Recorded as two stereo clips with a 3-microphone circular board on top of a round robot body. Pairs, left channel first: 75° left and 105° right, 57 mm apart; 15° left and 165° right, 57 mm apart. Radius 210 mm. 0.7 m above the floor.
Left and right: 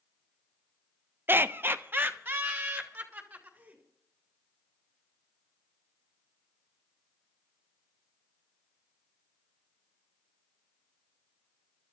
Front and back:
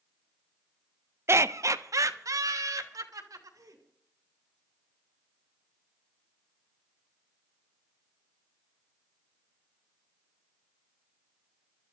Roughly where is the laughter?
Behind right.